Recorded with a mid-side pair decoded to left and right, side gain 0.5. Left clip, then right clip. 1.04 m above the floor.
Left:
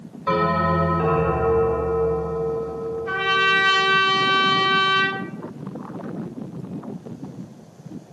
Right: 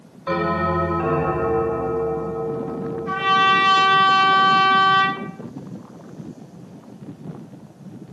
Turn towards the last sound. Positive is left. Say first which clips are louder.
# right 3 dB
turn(degrees=15)